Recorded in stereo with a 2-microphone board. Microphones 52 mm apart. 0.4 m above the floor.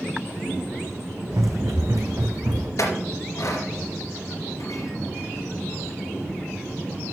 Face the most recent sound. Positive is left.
turn(degrees=75)  # may be behind; listen again after turning